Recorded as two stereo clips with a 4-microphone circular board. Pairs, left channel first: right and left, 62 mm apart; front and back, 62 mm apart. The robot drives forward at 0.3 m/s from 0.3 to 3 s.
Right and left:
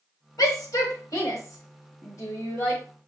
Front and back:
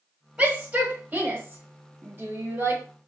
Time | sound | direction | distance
0.4 | a shout | 100° right | 1.6 m